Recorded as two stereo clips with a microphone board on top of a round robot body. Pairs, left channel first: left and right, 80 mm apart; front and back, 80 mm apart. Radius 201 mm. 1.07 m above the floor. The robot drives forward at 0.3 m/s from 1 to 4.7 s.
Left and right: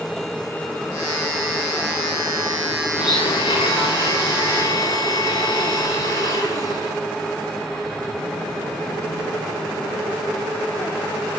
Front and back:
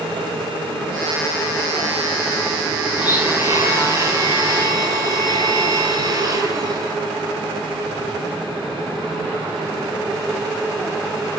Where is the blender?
110° left, 1.0 m; by 7.0 s 135° left, 1.2 m.